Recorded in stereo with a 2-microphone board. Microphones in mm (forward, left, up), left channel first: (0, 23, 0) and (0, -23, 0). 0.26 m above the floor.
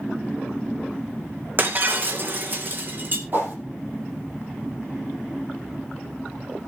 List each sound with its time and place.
1.6 s breaking glass: 45° right (ahead or behind), 2 m
3.3 s a whoosh: 45° right (ahead or behind), 6 m